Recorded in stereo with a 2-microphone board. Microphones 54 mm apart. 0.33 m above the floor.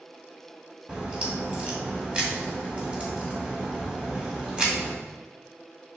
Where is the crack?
20° right (ahead or behind), 2 m.